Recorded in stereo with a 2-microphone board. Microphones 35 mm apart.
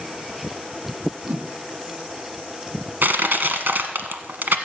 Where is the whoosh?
60° right (ahead or behind), 1.6 m.